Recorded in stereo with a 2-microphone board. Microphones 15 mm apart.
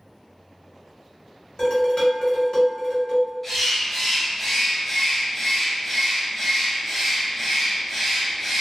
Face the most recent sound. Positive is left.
turn(degrees=20)  # may be behind; listen again after turning